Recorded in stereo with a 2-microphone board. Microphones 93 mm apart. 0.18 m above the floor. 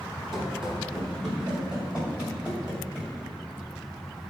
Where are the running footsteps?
Centre (ahead or behind), 4 m; by 3.1 s 15° right (ahead or behind), 6 m.